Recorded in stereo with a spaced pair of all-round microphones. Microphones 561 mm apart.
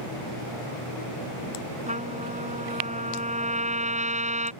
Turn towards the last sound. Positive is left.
turn(degrees=-10)  # may be behind; listen again after turning